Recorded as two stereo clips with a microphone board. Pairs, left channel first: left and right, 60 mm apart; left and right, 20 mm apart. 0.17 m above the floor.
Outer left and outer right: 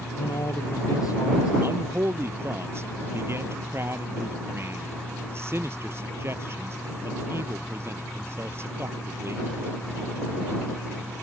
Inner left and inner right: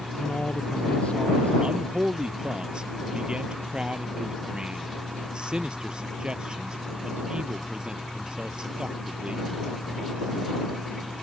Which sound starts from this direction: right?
A man speaking, at 1.6 s.